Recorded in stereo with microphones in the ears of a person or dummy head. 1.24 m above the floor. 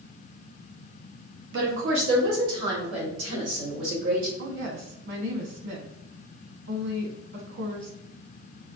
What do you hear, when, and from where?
1.5 s a woman speaking: 70° right (ahead or behind), 1.2 m
4.4 s a woman speaking: 70° right (ahead or behind), 1.5 m